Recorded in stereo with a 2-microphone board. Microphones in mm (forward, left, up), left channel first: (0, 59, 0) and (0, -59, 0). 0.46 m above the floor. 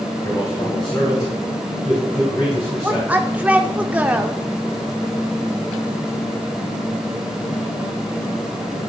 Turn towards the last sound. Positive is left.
turn(degrees=-15)  # may be behind; listen again after turning